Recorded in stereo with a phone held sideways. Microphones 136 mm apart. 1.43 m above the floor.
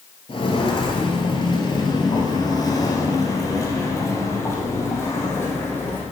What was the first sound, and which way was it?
Footsteps, 40° left (ahead or behind).